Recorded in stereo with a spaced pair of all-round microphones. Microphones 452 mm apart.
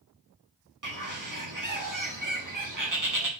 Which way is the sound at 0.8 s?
45° right (ahead or behind).